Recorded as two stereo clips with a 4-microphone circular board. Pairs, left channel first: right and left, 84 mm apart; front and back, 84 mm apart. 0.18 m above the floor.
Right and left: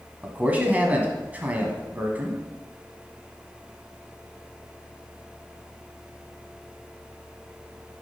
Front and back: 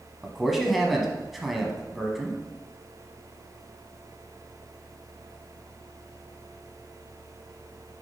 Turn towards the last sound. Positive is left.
turn(degrees=95)